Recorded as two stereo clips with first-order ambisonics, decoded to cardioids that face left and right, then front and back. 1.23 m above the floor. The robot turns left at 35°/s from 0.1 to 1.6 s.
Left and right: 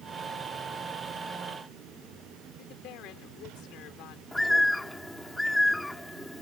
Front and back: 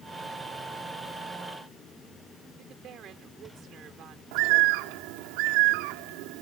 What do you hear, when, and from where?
2.6 s a woman speaking: 125° left
4.3 s a bird: 175° left